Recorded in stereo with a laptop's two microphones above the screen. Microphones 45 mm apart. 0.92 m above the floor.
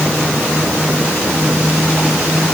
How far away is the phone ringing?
No phone ringing in this recording.